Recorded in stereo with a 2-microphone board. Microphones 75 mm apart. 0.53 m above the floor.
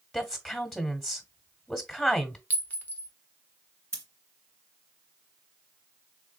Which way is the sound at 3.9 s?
35° right (ahead or behind).